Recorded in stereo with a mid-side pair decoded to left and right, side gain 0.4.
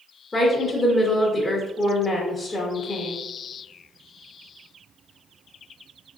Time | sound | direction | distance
0.3 | a woman speaking | 25° left | 0.9 m